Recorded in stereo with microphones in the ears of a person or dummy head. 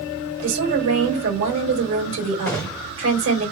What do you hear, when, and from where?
0.4 s a woman speaking: 80° right, 3 m
2.5 s a gunshot: 5° left (ahead or behind), 0.7 m